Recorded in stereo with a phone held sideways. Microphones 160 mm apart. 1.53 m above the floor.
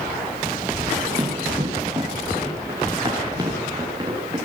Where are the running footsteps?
20° right (ahead or behind), 8.5 m; by 4.3 s 25° right (ahead or behind), 10.5 m.